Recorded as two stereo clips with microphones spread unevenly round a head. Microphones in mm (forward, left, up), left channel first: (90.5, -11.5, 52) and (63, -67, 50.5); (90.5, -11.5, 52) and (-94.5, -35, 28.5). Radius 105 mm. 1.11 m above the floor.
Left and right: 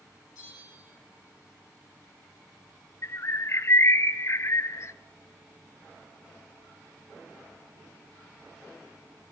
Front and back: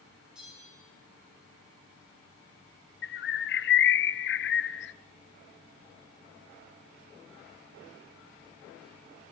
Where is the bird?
25° left, 1.0 m.